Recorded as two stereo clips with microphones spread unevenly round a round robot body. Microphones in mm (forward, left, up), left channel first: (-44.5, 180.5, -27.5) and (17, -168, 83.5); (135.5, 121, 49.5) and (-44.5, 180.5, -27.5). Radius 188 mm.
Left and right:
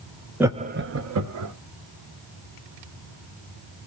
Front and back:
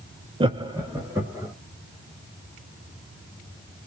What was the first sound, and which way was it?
Laughter, straight behind.